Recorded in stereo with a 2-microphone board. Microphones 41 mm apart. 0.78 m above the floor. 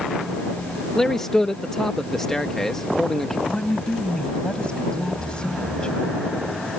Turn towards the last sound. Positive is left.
turn(degrees=25)  # may be behind; listen again after turning